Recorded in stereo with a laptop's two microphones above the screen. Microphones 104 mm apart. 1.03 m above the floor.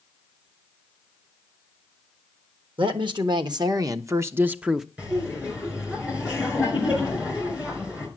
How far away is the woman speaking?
About 1.5 m.